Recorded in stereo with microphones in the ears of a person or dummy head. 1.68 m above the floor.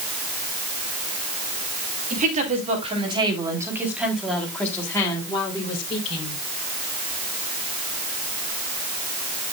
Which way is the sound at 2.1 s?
45° right (ahead or behind).